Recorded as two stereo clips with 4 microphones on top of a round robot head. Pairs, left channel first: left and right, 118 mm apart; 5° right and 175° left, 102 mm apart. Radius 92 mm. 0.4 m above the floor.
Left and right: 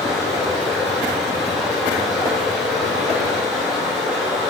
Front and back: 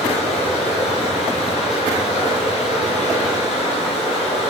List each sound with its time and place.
0.0 s running water: straight ahead, 2.5 m